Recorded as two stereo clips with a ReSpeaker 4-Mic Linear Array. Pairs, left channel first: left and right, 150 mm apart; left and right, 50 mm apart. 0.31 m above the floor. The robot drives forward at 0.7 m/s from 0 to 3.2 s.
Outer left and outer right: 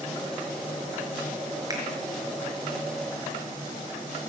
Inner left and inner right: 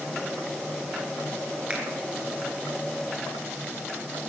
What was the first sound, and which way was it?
A finger snap, 25° right (ahead or behind).